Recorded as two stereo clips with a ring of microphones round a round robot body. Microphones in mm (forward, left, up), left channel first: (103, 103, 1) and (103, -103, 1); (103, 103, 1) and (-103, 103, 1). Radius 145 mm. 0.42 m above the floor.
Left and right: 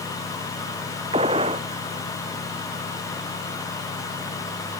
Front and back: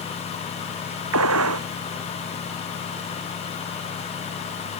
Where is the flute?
No flute in this recording.